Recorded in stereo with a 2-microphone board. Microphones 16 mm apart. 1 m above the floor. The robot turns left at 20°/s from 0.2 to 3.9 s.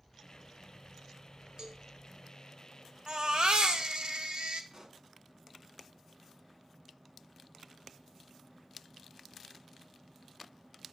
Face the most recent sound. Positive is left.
turn(degrees=-35)  # may be behind; listen again after turning